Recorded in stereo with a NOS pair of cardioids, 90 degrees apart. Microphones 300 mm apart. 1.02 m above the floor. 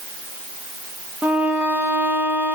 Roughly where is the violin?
Ahead.